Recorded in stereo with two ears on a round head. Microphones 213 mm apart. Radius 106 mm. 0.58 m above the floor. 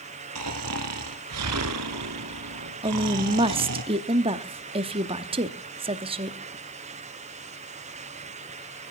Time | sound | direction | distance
0.3 | snoring | 75° right (ahead or behind) | 1.4 m
2.8 | a woman speaking | 25° right (ahead or behind) | 0.8 m